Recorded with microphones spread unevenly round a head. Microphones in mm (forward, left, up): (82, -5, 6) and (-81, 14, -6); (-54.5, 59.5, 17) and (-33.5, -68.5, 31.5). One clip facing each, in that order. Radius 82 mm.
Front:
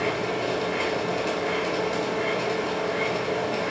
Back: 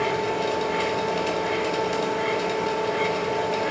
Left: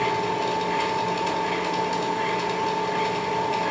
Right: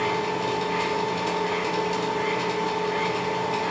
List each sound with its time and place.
0.0 s a machine running: 125° left, 2 m